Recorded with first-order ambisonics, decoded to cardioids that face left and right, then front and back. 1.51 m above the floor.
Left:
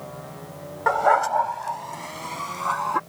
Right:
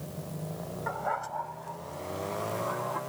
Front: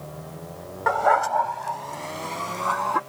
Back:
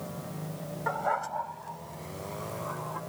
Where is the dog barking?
50° left; by 3.0 s 40° left.